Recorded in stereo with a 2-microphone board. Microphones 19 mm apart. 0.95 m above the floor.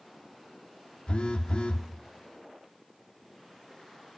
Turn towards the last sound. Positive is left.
turn(degrees=60)  # may be behind; listen again after turning